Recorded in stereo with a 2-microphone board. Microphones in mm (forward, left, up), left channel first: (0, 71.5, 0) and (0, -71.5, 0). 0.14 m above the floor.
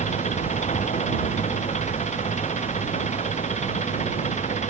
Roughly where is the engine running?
Left.